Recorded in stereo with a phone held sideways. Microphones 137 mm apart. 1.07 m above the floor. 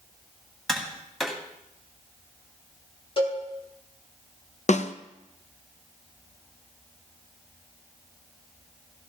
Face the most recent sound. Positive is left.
turn(degrees=55)  # may be behind; listen again after turning